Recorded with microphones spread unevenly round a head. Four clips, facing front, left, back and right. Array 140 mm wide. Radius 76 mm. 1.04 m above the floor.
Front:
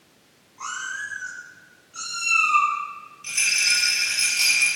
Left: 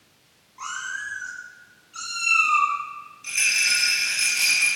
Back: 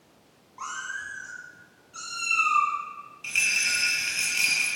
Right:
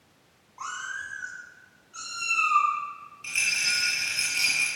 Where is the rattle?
140° right, 8 m.